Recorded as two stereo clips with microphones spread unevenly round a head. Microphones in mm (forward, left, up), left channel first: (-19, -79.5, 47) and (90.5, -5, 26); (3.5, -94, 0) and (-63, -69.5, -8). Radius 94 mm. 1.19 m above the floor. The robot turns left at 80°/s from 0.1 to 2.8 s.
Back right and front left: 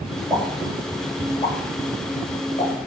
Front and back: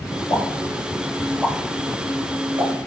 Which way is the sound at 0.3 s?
25° right.